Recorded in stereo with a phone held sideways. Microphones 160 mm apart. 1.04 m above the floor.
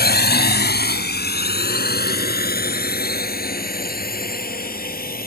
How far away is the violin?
I don't hear a violin.